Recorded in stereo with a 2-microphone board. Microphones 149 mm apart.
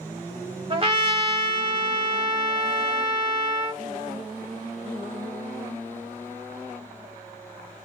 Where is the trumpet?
40° right (ahead or behind), 1.0 m.